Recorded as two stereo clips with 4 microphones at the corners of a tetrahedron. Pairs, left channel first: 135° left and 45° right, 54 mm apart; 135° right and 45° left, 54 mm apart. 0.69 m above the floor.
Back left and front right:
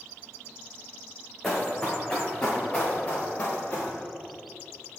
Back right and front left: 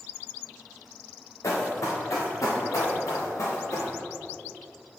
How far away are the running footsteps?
About 4 m.